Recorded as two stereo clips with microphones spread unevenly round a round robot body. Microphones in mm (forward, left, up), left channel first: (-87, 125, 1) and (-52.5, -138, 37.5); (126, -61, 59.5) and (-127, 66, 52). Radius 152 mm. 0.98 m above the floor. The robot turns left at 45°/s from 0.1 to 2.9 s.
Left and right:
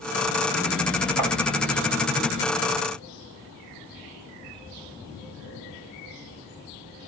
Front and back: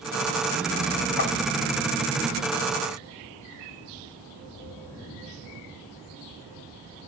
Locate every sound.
1.2 s tapping: 70° right, 3 m; by 1.3 s 75° right, 3 m